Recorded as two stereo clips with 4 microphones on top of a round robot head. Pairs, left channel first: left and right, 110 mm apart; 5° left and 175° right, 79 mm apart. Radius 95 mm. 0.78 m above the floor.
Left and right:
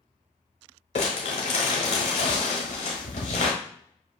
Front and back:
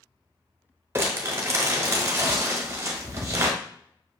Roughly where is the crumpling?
Behind left.